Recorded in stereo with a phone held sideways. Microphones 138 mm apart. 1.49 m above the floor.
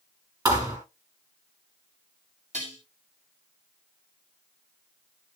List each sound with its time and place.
0.5 s a thud: 30° right (ahead or behind), 4.5 m
2.5 s dishes clattering: 65° right (ahead or behind), 6 m